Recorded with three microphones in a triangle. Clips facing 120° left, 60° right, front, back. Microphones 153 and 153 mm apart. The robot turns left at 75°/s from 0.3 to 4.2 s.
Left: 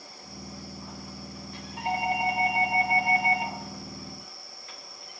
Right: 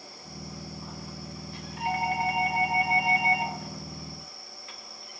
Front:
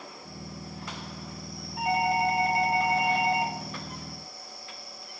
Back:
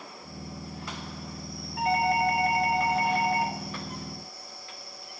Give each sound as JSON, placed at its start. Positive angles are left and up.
{"t": 1.8, "sound": "a doorbell", "azimuth_deg": 80, "distance_m": 1.9}